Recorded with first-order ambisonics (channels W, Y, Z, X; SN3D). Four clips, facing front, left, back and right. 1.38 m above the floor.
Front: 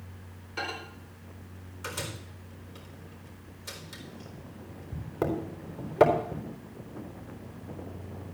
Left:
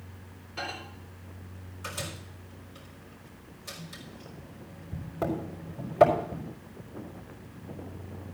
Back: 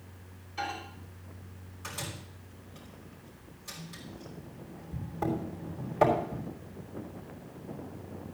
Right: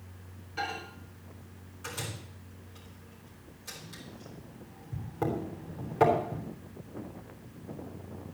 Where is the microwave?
5° left, 4 m.